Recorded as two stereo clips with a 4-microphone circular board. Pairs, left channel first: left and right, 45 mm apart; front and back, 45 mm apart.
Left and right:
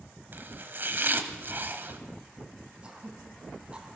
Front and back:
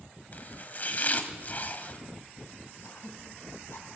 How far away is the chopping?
About 1.3 m.